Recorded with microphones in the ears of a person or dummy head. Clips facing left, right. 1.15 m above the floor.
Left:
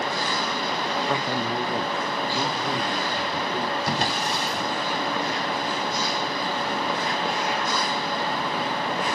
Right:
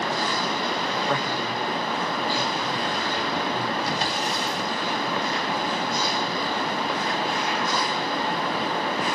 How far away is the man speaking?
About 0.9 m.